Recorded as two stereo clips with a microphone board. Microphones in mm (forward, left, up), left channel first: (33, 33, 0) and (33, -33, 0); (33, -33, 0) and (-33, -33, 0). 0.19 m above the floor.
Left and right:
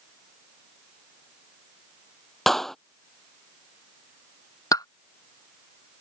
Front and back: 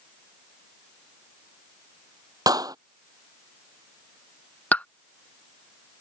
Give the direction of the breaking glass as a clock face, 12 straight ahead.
No breaking glass in this recording.